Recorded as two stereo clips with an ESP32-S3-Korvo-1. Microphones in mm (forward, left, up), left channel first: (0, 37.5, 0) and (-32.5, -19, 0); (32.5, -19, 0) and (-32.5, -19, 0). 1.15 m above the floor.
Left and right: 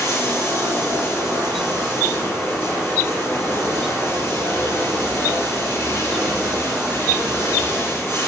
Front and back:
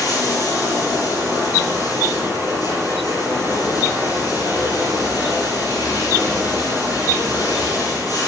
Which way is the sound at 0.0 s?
20° left.